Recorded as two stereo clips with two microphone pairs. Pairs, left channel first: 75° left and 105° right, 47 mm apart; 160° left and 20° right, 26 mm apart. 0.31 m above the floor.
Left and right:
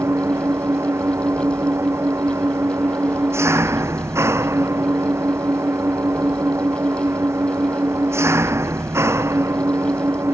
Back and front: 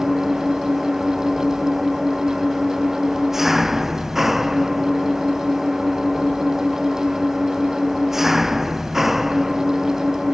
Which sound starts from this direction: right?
An engine running, at 0.0 s.